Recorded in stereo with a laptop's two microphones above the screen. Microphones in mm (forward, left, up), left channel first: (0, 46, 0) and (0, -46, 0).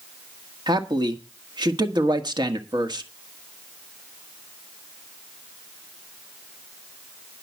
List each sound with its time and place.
0.7 s a man speaking: 55° right (ahead or behind), 1.6 m